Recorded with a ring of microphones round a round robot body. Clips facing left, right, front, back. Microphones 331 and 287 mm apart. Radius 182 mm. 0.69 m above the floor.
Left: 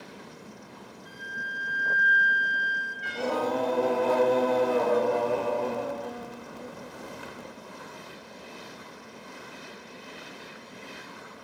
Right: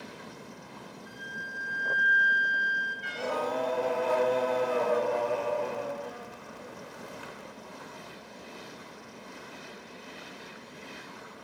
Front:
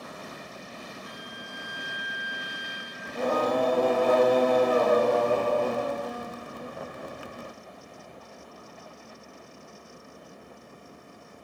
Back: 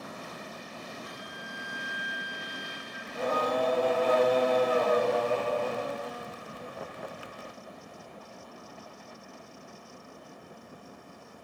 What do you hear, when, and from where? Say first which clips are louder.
1.1 s a flute: even, front 1 dB; 115° left, 5.5 m
3.0 s singing: left 4 dB, front 4 dB; 45° left, 0.7 m